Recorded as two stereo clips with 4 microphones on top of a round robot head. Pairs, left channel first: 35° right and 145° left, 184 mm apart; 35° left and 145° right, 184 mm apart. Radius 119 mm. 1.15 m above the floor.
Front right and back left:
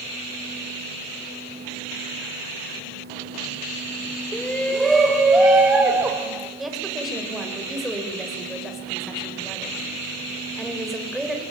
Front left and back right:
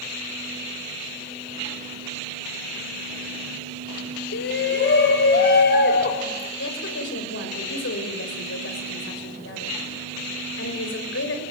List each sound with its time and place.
4.3 s a shout: 45° left, 1.8 m; by 6.5 s 65° left, 3 m
6.6 s a woman speaking: 55° left, 6 m